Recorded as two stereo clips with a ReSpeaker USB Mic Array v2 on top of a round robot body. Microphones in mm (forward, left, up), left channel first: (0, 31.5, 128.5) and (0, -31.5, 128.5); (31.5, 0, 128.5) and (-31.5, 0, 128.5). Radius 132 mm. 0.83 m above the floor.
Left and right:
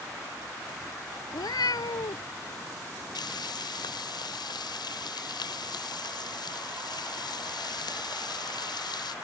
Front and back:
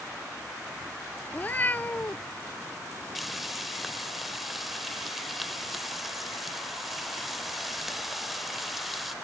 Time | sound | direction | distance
1.3 | a cat meowing | 65° left | ?
3.1 | frying | 90° left | ?